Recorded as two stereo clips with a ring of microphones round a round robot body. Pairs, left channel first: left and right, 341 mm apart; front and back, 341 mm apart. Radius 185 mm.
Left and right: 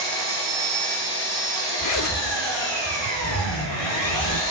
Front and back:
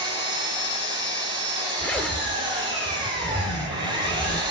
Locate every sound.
0.0 s an engine running: 100° left, 9 m
1.8 s a zipper: 85° left, 1.6 m